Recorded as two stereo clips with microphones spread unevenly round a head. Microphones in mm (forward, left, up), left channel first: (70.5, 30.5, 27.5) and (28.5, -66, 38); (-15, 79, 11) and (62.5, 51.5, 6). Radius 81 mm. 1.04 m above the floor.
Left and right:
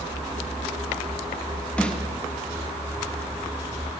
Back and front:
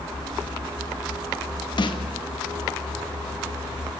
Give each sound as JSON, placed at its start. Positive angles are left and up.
{"t": 1.8, "sound": "a snare drum", "azimuth_deg": 145, "distance_m": 1.9}